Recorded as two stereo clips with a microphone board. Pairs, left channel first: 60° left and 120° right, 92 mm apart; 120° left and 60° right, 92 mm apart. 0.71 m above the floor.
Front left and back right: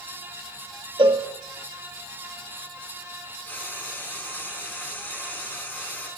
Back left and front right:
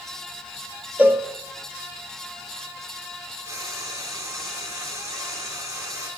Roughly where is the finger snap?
No finger snap in this recording.